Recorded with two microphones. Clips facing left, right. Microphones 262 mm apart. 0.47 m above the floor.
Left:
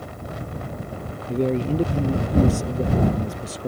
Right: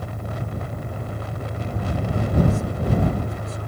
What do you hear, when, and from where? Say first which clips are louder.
0.0 s an engine running: right 2 dB; 70° right (ahead or behind)
1.3 s a man speaking: left 15 dB; 85° left